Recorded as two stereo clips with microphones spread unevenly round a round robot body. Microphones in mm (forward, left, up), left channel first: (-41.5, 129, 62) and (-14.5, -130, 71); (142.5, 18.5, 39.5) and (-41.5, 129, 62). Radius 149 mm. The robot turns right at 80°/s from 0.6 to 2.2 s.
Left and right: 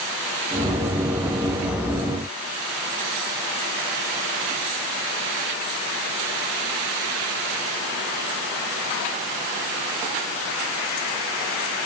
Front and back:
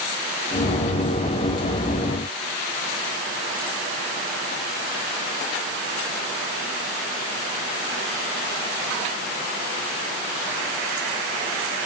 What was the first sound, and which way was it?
Only background noise.